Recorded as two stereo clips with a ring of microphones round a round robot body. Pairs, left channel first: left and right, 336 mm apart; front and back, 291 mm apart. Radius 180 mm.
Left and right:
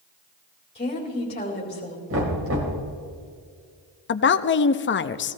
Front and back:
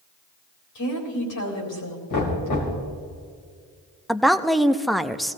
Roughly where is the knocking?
Ahead right.